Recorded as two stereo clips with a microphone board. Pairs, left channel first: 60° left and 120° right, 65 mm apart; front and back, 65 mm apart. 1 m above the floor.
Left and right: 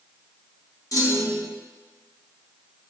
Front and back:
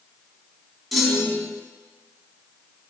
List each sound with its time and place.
0.9 s a clunk: 90° left, 1.3 m